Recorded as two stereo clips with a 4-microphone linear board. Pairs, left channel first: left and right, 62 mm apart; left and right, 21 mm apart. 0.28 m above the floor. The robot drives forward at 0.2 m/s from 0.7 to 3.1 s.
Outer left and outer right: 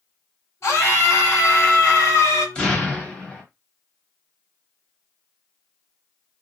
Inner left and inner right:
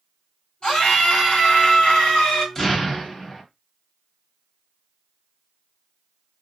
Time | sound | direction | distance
0.6 | a scream | 45° left (ahead or behind) | 1.7 m
2.5 | an explosion | 20° left (ahead or behind) | 0.9 m